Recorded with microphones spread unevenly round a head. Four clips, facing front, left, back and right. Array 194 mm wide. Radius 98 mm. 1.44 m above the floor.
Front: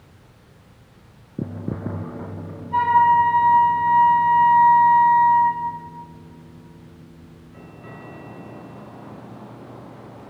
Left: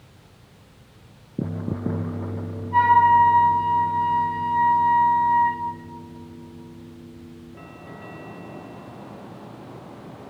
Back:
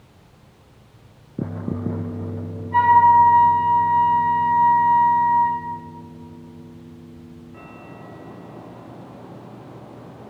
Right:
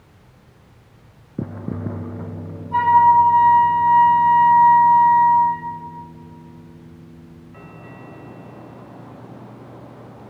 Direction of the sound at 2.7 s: 120° right.